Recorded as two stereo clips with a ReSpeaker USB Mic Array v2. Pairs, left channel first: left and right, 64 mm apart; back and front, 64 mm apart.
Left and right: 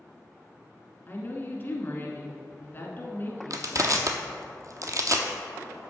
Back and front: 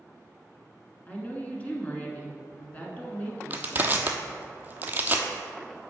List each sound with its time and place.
1.1 s a woman speaking: 130° left, 1.3 m
3.5 s crushing: 60° right, 0.7 m